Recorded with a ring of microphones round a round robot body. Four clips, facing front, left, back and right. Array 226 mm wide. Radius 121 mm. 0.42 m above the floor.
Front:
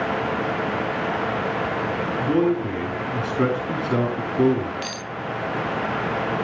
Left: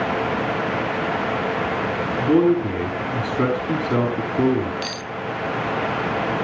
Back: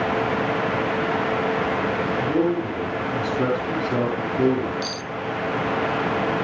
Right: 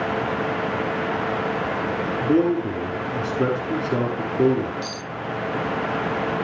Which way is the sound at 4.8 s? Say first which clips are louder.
Left 2 dB, back 2 dB; 70° left.